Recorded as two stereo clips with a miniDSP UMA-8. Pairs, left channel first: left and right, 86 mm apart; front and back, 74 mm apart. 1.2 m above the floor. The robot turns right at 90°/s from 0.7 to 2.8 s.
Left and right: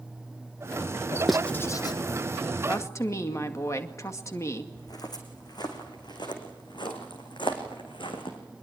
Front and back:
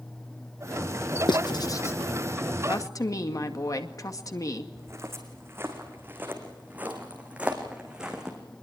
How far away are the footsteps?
About 4 m.